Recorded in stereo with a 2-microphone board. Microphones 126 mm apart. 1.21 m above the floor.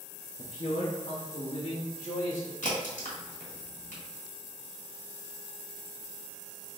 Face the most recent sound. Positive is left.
turn(degrees=80)